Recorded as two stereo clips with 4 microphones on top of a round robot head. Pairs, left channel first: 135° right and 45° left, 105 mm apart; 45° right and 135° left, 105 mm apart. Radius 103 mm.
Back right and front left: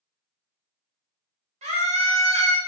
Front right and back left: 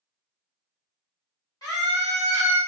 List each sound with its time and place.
1.6 s a scream: 20° left, 1.0 m